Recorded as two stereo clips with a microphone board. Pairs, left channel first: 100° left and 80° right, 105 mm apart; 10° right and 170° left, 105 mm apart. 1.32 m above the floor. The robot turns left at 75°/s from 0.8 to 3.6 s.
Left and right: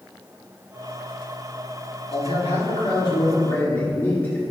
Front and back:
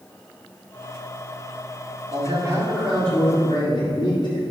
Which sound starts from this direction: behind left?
A man speaking, at 2.1 s.